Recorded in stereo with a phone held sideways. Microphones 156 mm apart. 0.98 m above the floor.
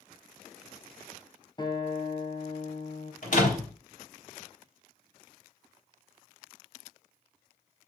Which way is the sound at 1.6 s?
30° left (ahead or behind).